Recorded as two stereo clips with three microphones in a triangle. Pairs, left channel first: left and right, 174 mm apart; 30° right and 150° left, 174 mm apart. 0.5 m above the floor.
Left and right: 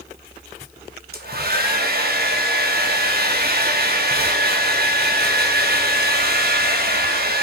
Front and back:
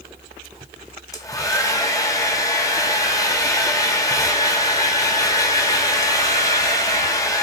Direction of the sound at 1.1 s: 100° right.